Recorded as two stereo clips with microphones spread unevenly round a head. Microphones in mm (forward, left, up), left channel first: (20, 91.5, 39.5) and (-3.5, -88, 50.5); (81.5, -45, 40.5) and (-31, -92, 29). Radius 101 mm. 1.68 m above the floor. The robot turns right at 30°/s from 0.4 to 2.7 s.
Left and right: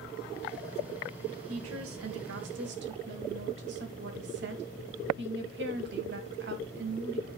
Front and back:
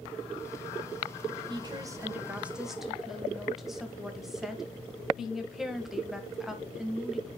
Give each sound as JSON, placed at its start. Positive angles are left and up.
{"t": 1.5, "sound": "a woman speaking", "azimuth_deg": -105, "distance_m": 2.0}